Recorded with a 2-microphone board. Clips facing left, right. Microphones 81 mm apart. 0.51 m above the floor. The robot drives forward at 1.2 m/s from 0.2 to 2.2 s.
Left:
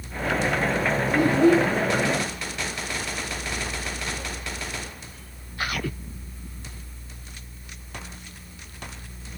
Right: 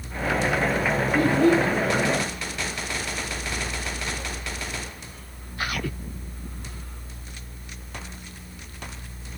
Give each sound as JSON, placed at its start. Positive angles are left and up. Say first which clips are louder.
{"t": 1.1, "sound": "a child speaking", "louder": "left 1 dB", "side_deg": 20, "distance_m": 1.5}